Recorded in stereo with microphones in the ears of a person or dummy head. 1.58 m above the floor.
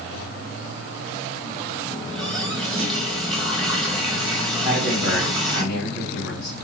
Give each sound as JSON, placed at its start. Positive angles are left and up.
{"t": 1.9, "sound": "a running tap", "side_deg": 5, "distance_m": 1.3}
{"t": 4.6, "sound": "a man speaking", "side_deg": 80, "distance_m": 3.0}